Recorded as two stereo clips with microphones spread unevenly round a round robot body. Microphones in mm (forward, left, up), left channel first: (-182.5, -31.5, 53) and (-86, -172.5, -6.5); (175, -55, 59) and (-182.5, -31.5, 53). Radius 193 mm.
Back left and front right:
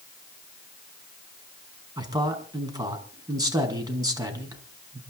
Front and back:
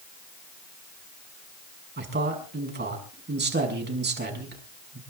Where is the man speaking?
120° right, 6 m.